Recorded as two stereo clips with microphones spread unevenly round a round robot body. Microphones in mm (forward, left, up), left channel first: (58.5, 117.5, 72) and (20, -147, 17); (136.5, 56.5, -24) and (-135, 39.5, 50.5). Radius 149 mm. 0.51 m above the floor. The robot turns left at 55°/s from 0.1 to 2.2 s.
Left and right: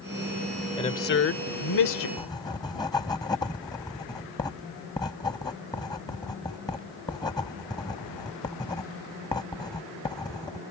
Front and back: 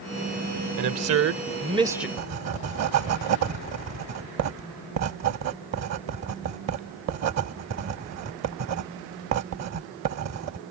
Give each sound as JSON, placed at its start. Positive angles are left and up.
{"t": 0.8, "sound": "a man speaking", "azimuth_deg": 160}
{"t": 2.2, "sound": "writing", "azimuth_deg": 160}